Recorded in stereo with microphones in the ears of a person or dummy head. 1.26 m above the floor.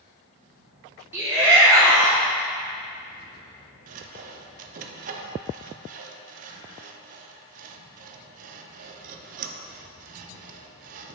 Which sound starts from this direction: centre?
A shout, at 1.1 s.